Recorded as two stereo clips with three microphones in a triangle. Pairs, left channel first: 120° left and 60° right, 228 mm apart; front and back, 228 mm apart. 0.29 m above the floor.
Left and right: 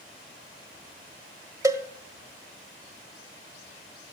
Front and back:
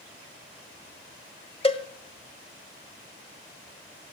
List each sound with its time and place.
1.6 s a cowbell: 5° right, 1.3 m